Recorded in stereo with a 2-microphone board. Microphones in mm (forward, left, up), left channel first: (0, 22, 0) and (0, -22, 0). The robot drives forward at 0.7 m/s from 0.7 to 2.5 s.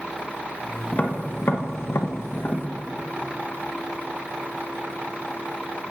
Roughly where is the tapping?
Left.